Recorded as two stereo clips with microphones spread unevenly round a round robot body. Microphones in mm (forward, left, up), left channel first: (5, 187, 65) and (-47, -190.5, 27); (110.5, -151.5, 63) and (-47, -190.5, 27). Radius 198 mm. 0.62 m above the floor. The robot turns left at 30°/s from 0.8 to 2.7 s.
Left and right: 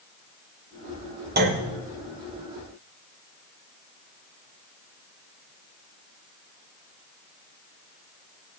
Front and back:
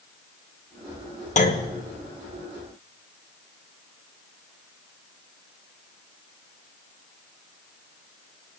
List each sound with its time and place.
1.4 s a clunk: 35° right, 1.7 m; by 1.7 s 45° right, 1.7 m